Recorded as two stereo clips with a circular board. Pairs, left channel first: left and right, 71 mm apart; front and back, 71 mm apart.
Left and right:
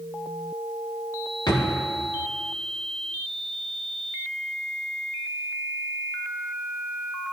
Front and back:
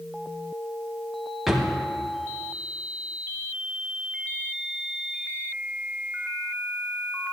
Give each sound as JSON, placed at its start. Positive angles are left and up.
{"t": 1.5, "sound": "a drawer", "azimuth_deg": 95, "distance_m": 1.1}